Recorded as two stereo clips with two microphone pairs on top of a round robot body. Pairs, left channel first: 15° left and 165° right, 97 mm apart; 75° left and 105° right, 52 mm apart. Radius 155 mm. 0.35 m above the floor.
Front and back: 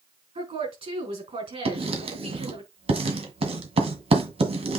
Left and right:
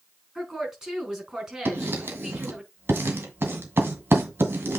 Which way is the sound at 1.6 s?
145° right.